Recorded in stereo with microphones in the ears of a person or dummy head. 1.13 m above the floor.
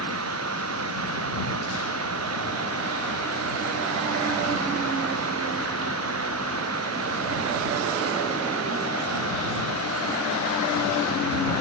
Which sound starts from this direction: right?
Running water, at 0.0 s.